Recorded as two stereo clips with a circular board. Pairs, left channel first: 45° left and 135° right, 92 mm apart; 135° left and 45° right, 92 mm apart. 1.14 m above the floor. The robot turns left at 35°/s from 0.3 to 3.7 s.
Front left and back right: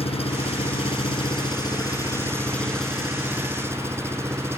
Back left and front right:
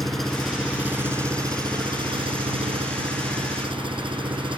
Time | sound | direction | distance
0.0 | an engine running | 45° left | ?